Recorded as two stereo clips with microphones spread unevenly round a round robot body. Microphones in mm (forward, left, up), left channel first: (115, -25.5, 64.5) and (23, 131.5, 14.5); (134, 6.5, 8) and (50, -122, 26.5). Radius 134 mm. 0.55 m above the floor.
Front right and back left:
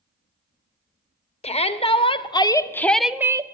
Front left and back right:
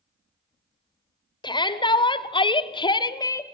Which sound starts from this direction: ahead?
A shout, at 1.4 s.